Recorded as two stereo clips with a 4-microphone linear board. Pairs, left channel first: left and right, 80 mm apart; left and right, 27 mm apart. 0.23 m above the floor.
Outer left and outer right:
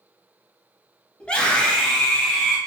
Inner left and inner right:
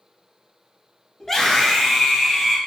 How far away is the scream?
About 1.1 m.